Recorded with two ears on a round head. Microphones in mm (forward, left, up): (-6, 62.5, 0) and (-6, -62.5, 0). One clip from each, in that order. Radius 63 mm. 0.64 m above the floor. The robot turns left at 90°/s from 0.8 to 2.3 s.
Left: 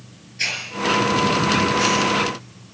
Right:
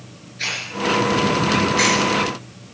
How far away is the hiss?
About 5 m.